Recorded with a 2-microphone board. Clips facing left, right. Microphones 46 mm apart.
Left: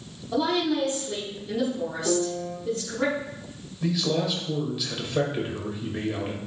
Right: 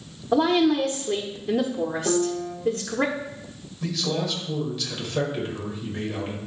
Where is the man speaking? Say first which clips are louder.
Left 2 dB; 10° left (ahead or behind), 2 m.